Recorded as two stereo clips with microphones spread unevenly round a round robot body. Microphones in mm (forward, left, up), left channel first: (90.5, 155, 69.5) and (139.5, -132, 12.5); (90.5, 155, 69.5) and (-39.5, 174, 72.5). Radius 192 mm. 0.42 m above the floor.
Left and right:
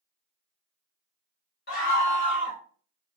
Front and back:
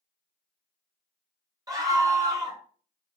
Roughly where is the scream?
Behind left.